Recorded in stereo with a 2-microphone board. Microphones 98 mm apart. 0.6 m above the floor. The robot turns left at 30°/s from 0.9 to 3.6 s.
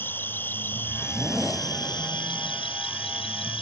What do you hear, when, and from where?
0.0 s an insect: 160° left; by 3.6 s 80° left